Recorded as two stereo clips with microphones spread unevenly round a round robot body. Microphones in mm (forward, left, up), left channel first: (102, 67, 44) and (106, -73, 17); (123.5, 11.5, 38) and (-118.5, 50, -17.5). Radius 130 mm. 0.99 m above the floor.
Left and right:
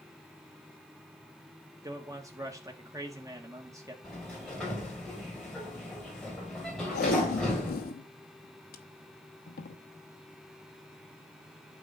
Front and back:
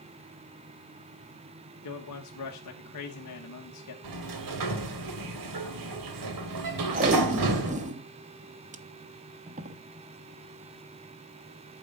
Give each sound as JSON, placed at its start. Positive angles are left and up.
{"t": 1.8, "sound": "a man speaking", "azimuth_deg": -30, "distance_m": 1.4}
{"t": 4.0, "sound": "a sliding door", "azimuth_deg": 175, "distance_m": 1.6}
{"t": 6.9, "sound": "tape being pulled", "azimuth_deg": 105, "distance_m": 0.8}